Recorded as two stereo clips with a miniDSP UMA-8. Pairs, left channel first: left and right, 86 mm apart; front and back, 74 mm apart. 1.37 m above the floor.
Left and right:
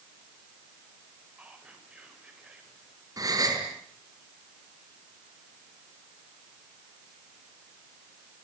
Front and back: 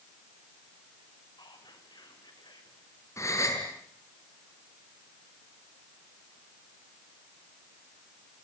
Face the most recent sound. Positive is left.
turn(degrees=-50)